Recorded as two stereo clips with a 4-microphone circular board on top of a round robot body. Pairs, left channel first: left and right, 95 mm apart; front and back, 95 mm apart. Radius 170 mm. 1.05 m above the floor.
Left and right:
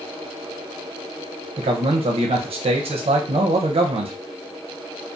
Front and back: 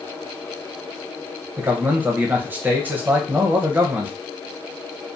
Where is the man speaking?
110° right, 0.5 m.